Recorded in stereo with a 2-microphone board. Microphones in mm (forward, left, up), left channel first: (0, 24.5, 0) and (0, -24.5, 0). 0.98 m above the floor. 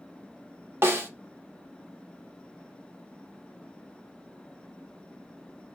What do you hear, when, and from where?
0.8 s a snare drum: 60° right (ahead or behind), 1.0 m